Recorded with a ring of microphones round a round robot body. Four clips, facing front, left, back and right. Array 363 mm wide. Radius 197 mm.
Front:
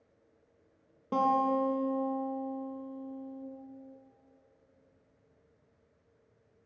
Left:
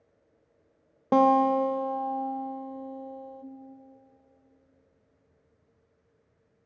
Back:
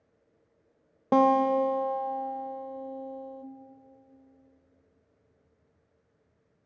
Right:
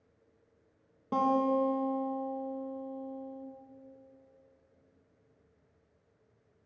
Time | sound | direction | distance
1.1 | a guitar | 135° left | 0.5 m